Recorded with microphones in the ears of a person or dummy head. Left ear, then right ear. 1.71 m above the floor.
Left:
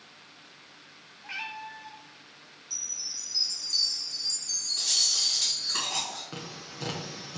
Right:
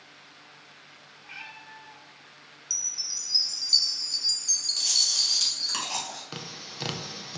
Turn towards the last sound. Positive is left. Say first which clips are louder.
# right 2 dB
turn(degrees=-35)  # may be behind; listen again after turning